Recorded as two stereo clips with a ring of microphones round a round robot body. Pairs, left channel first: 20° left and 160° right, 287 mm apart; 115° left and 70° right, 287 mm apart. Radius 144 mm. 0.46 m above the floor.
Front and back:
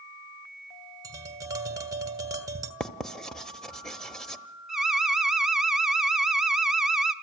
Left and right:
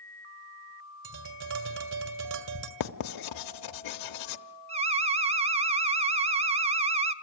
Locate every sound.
1.0 s tapping: 80° right, 1.9 m
2.8 s writing: 110° left, 0.8 m
4.7 s an alarm: 70° right, 0.7 m